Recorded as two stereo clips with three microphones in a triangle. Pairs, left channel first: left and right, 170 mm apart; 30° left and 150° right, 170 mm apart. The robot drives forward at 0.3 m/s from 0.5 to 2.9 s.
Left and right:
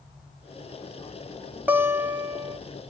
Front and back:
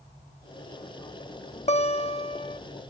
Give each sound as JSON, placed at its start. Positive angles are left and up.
{"t": 1.7, "sound": "a guitar", "azimuth_deg": -15, "distance_m": 0.7}